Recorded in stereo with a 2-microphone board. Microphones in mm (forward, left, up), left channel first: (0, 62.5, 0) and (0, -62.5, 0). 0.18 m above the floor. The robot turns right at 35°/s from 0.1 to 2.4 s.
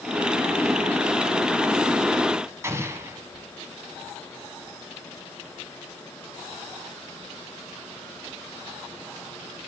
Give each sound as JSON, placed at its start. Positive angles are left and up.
{"t": 2.6, "sound": "an explosion", "side_deg": -20, "distance_m": 1.3}